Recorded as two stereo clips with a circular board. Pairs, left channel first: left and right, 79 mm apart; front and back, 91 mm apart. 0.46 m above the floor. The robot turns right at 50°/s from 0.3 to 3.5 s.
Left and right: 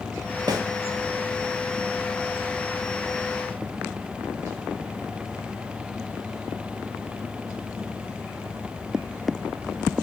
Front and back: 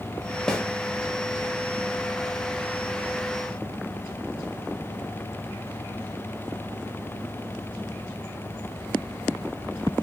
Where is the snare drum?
85° right, 0.8 m; by 0.6 s 80° right, 0.8 m.